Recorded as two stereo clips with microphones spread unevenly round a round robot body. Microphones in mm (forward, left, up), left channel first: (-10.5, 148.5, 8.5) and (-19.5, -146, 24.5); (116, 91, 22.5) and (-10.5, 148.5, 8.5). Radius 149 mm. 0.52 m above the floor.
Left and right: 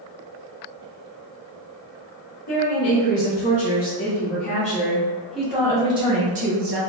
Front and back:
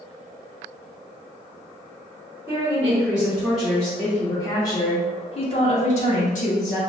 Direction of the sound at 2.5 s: 80° left.